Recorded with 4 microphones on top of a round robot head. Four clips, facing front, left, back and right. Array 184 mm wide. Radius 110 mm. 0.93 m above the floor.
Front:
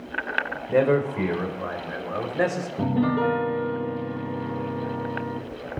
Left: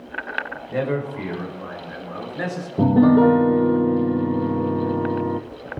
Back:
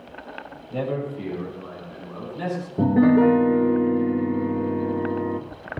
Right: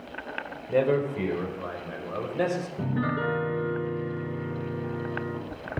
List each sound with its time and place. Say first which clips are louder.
0.7 s a man speaking: right 1 dB, front 7 dB; 25° right, 5 m; by 2.7 s 30° right, 6 m
2.8 s a piano: left 18 dB, back 7 dB; 120° left, 0.9 m